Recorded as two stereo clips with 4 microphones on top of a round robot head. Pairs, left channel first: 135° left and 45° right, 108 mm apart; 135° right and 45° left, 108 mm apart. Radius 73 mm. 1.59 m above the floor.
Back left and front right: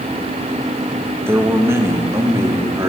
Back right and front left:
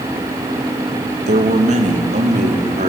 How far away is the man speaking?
About 1.8 m.